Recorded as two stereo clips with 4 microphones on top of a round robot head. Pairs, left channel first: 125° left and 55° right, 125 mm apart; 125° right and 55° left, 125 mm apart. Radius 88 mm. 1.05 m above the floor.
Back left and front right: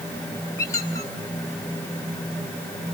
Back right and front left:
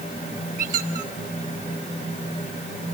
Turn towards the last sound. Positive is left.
turn(degrees=60)